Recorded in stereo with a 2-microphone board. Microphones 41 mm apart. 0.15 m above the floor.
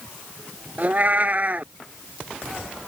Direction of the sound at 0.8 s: 40° right (ahead or behind).